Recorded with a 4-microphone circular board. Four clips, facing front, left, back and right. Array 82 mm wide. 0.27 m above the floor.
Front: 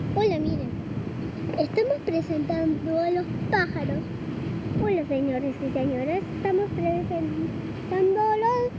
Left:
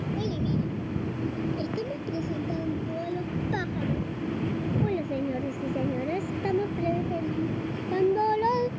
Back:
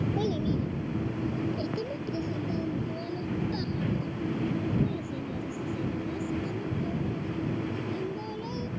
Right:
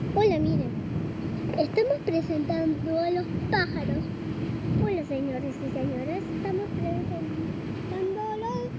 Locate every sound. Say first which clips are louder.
0.2 s a child speaking: right 10 dB, front 10 dB; 55° right; by 8.7 s 25° left